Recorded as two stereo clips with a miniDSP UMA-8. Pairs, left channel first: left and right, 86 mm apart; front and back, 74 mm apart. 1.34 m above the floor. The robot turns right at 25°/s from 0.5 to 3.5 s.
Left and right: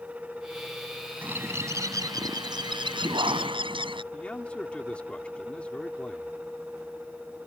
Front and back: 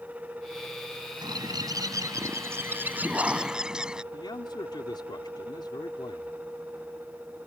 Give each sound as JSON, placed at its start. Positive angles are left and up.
{"t": 1.2, "sound": "a bird", "azimuth_deg": -160}
{"t": 4.1, "sound": "a man speaking", "azimuth_deg": 15}